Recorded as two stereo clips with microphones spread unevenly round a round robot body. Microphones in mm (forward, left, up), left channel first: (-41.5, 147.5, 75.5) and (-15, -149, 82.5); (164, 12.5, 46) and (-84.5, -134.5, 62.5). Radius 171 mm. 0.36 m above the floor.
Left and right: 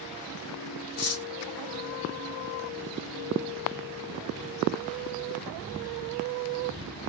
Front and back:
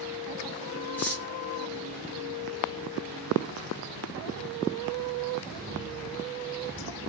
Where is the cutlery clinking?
110° left, 1.0 m.